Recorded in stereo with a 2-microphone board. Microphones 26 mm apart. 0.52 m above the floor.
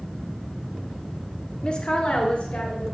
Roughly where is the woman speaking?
Left.